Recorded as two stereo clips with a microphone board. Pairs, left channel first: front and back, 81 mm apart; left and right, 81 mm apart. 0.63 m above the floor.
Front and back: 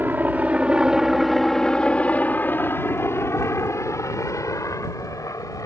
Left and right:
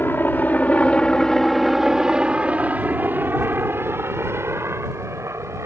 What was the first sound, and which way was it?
A helicopter, 130° left.